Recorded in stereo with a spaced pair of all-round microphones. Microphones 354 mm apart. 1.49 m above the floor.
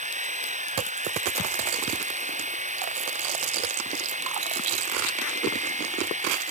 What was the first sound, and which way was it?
A machine running, 20° right (ahead or behind).